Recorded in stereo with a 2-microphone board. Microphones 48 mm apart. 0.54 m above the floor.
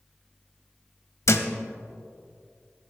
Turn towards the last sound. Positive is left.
turn(degrees=65)  # may be behind; listen again after turning